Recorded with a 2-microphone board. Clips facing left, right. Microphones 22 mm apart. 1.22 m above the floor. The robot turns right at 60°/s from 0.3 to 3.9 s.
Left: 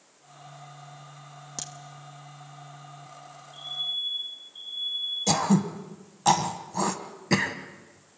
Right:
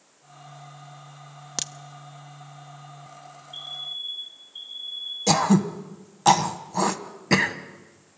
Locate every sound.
1.6 s a crack: 40° right (ahead or behind), 0.9 m; by 1.7 s 45° right (ahead or behind), 0.9 m
3.5 s a fire alarm: 45° right (ahead or behind), 7 m; by 5.2 s 25° right (ahead or behind), 7 m
5.3 s throat clearing: 15° right (ahead or behind), 1.4 m